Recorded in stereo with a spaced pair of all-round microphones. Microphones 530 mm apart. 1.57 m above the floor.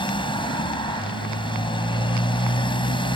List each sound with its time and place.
0.0 s a motorcycle: 10° left (ahead or behind)